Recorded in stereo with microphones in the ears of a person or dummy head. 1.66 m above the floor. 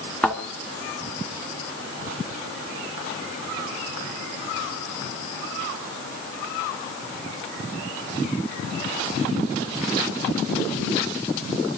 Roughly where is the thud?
Centre.